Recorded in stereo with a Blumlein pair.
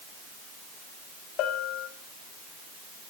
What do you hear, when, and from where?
1.4 s a bell: 35° left, 1.7 m